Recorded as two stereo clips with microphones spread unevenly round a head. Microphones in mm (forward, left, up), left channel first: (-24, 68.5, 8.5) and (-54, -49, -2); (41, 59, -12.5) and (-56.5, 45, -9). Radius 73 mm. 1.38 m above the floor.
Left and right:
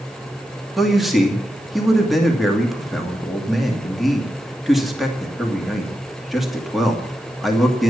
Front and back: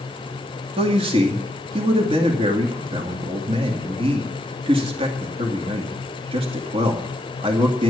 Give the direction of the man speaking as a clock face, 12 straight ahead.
6 o'clock.